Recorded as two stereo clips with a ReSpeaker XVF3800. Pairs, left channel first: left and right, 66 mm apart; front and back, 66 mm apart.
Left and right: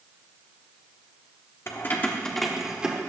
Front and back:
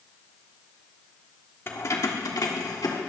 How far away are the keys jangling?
About 1.3 m.